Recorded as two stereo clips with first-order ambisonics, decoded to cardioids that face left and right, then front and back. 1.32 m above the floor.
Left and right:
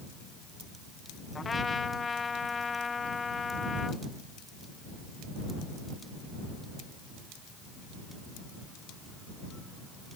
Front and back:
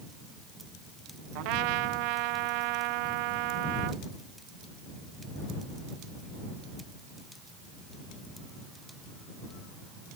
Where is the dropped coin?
No dropped coin in this recording.